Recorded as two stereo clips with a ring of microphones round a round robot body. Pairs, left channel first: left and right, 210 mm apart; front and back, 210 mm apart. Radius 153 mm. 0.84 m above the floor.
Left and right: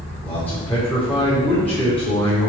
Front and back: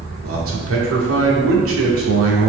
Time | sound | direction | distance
0.2 | a man speaking | 175° left | 2 m